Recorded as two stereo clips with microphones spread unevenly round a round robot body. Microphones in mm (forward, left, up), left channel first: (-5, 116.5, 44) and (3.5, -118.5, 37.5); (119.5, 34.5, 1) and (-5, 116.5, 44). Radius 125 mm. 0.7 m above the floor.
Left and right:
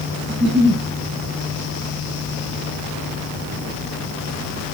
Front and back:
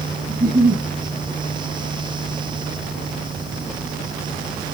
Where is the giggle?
150° right, 4 m.